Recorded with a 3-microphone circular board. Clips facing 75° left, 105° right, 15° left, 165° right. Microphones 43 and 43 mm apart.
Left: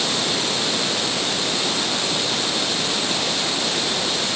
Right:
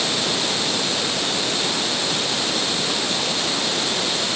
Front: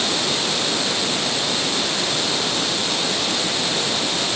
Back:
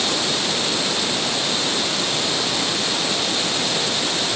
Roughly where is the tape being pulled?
No tape being pulled in this recording.